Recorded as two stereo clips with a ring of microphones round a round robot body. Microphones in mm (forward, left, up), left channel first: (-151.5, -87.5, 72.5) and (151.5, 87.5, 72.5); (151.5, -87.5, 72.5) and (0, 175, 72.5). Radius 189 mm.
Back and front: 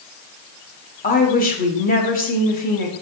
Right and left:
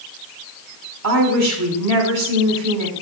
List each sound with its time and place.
1.0 s a woman speaking: 145° left, 1.2 m